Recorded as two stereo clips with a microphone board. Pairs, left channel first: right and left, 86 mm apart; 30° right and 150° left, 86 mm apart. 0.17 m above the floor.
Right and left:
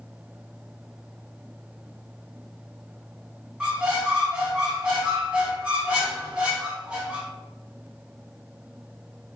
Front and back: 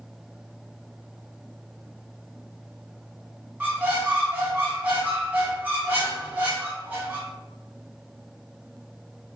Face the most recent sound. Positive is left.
turn(degrees=140)